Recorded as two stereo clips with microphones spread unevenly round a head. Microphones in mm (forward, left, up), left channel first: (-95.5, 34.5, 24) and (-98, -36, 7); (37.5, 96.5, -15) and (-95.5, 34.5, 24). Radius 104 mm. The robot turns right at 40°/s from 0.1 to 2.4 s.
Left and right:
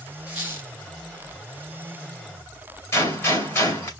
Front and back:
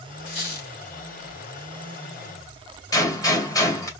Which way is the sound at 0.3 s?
Straight ahead.